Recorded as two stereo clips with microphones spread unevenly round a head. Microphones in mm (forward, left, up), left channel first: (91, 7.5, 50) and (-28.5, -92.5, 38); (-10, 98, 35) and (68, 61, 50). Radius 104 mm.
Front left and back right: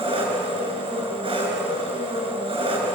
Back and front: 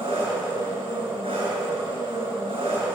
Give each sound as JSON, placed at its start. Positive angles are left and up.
{"t": 0.0, "sound": "an engine running", "azimuth_deg": -85, "distance_m": 7.5}